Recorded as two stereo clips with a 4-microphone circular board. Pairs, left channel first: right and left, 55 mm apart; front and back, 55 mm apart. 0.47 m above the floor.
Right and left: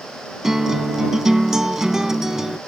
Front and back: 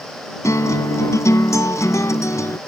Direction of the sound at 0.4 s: 10° left.